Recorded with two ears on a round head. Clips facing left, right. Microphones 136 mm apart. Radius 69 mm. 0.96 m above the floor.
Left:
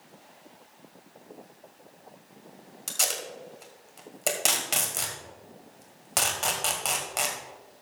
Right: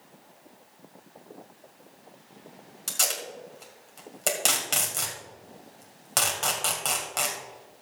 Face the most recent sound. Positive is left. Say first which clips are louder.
# even
turn(degrees=5)  # may be behind; listen again after turning